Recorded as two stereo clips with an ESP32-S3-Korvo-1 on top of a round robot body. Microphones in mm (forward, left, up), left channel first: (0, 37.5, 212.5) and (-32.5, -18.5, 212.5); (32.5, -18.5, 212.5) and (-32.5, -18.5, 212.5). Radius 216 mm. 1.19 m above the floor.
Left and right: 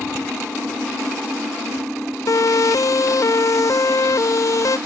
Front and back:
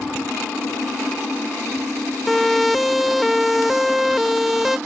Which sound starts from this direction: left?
A siren, at 2.3 s.